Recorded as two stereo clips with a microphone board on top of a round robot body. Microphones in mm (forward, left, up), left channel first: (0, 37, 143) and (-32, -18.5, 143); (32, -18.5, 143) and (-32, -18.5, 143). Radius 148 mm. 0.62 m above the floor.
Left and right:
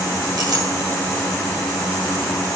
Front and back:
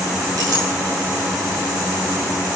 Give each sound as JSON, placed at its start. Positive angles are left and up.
{"t": 0.4, "sound": "a clink", "azimuth_deg": -145, "distance_m": 8.5}